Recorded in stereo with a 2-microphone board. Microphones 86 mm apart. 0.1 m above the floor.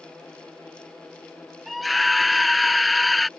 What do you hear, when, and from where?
1.7 s a scream: centre (ahead or behind)